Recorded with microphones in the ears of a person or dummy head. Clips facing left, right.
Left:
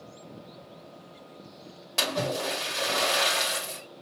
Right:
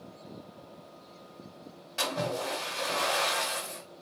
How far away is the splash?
About 2.0 m.